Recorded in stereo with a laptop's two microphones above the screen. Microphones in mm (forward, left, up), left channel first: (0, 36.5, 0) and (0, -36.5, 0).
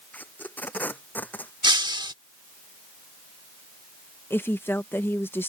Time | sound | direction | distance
0.1 | tape being pulled | 20° left (ahead or behind) | ?
1.6 | breaking glass | 80° right | ?
4.3 | a woman speaking | 30° left (ahead or behind) | ?